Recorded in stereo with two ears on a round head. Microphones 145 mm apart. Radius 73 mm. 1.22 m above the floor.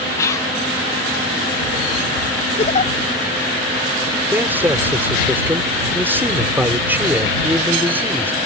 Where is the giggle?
40° left (ahead or behind).